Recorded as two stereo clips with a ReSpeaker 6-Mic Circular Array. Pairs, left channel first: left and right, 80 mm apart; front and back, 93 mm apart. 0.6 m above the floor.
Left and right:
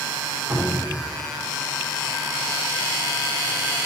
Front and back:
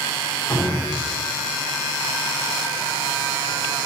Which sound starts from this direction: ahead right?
A cupboard door, at 0.5 s.